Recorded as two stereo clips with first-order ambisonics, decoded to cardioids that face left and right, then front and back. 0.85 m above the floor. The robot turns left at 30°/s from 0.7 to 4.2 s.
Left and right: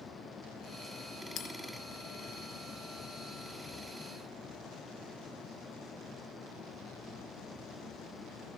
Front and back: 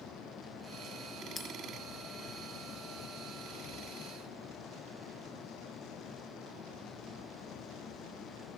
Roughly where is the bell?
Left.